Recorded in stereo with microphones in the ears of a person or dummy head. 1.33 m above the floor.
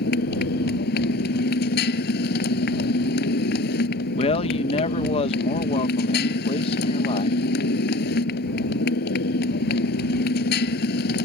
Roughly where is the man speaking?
Left.